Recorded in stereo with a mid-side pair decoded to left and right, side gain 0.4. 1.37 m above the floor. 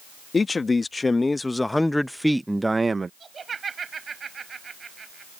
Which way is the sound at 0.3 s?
35° left.